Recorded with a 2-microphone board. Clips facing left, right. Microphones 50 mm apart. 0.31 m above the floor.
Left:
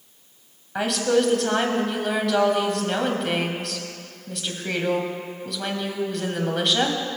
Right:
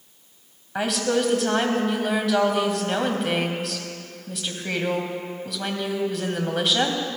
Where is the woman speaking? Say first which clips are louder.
Left 2 dB; centre (ahead or behind), 1.9 m.